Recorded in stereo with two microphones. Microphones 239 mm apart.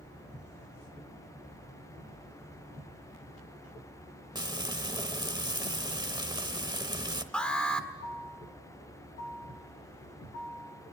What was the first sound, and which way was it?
Frying, 15° right (ahead or behind).